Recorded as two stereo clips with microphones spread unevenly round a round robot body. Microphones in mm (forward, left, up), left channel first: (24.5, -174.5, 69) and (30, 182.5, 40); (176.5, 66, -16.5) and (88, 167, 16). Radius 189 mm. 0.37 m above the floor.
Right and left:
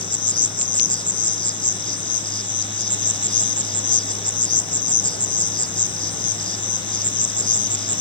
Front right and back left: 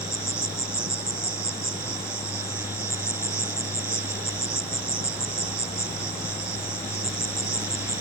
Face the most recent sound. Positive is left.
turn(degrees=-170)